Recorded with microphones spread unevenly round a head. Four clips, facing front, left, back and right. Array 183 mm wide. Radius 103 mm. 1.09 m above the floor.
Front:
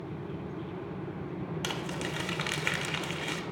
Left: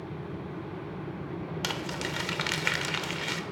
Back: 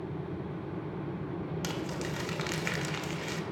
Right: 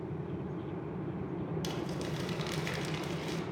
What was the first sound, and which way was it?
Crumpling, 70° left.